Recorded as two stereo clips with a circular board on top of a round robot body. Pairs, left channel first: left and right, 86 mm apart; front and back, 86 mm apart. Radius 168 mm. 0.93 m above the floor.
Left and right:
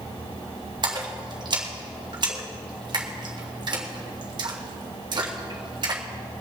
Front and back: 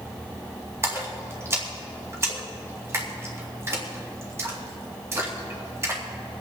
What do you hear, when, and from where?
0.8 s a splash: 120° right, 2.5 m